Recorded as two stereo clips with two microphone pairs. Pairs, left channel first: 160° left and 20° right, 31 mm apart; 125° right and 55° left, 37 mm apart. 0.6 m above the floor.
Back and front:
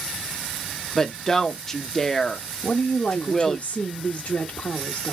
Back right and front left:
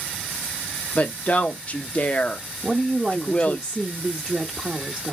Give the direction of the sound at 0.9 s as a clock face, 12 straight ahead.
4 o'clock.